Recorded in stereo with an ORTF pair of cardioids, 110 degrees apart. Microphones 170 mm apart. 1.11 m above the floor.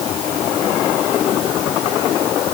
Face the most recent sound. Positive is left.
No sound to turn to.